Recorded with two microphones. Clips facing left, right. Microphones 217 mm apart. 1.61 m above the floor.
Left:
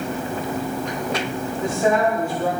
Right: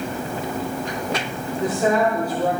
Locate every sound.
1.6 s a woman speaking: 40° right (ahead or behind), 5.5 m